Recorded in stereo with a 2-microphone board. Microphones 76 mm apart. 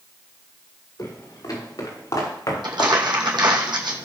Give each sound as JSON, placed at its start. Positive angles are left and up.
{"t": 1.0, "sound": "footsteps", "side_deg": 50, "distance_m": 6.5}
{"t": 2.6, "sound": "crumpling", "side_deg": -75, "distance_m": 2.5}